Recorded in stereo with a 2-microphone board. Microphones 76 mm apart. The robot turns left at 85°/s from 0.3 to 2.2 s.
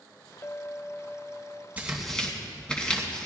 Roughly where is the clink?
Ahead left.